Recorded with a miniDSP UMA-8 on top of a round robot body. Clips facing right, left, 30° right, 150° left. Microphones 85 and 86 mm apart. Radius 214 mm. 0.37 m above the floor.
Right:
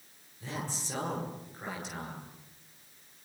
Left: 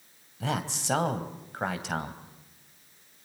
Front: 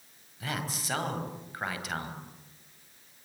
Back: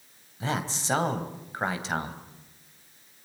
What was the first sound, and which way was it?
A man speaking, 90° left.